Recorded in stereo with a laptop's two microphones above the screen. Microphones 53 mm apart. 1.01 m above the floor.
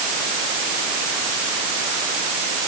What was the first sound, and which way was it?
Only background noise.